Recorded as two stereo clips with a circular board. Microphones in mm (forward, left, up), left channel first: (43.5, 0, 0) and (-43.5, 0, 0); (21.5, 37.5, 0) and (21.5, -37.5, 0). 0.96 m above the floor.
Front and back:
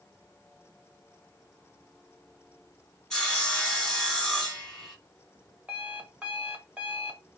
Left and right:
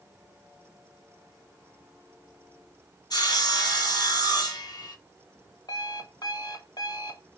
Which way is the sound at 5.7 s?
105° left.